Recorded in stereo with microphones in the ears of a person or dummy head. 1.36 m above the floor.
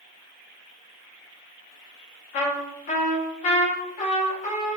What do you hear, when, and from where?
2.3 s a trumpet: 40° left (ahead or behind), 0.7 m